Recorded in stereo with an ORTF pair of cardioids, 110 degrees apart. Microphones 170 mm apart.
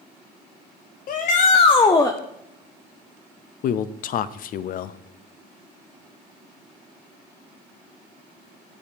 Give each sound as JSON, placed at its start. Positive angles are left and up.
{"t": 1.1, "sound": "a shout", "azimuth_deg": 60, "distance_m": 0.8}
{"t": 3.6, "sound": "a man speaking", "azimuth_deg": 55, "distance_m": 0.6}